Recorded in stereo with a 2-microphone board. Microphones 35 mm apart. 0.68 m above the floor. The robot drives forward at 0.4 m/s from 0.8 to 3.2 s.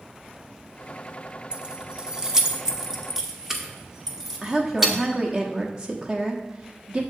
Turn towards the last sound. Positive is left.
turn(degrees=-25)  # may be behind; listen again after turning